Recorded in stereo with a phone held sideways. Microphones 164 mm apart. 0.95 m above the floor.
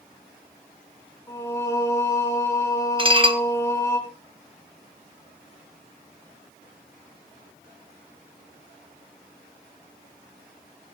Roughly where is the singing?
Centre.